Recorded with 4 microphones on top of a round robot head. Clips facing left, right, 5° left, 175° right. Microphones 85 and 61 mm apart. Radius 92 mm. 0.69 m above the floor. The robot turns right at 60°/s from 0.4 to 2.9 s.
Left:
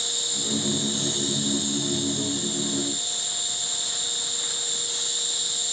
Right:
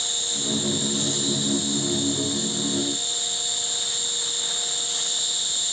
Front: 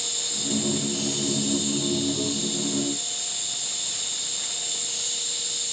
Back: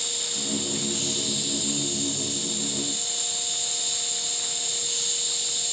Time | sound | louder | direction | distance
0.0 | an insect | right 2 dB, even | 15° left | 0.7 m